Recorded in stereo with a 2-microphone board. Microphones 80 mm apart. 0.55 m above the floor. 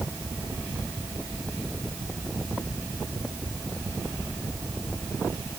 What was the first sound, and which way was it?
Only background noise.